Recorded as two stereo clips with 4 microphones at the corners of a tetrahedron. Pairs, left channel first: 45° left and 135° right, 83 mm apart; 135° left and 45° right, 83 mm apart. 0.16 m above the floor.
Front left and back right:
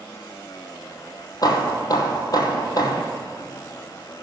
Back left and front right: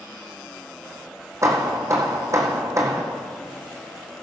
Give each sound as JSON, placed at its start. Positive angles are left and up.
{"t": 1.4, "sound": "hammering", "azimuth_deg": 5, "distance_m": 1.6}